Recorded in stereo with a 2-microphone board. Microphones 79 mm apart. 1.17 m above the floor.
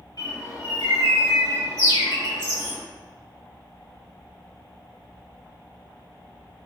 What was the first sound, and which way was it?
A bird, 60° left (ahead or behind).